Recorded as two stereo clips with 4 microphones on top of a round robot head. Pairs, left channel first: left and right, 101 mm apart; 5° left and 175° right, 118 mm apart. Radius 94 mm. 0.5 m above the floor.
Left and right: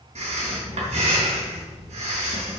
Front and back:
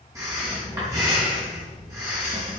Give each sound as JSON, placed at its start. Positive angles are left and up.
{"t": 0.1, "sound": "breathing", "azimuth_deg": -105, "distance_m": 3.5}